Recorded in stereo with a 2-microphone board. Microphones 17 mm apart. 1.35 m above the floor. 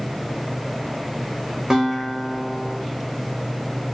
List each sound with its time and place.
1.7 s a guitar: 20° right (ahead or behind), 1.3 m